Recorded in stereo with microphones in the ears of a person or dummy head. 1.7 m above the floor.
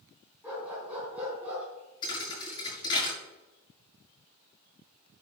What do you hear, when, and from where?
0.4 s a dog barking: 10° right (ahead or behind), 4.5 m
2.0 s a thud: 20° left (ahead or behind), 5.5 m